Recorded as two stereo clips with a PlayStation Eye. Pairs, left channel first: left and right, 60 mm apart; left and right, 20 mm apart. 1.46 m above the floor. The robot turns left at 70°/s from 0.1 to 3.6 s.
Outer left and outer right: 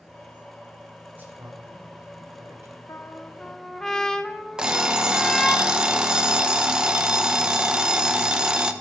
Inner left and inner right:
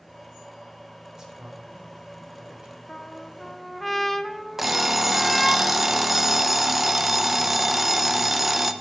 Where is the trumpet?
60° left, 0.5 m; by 5.6 s 10° left, 0.5 m.